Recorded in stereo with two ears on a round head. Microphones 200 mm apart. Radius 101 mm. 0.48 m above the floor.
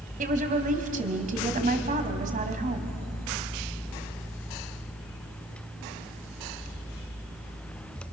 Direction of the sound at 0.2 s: 40° right (ahead or behind).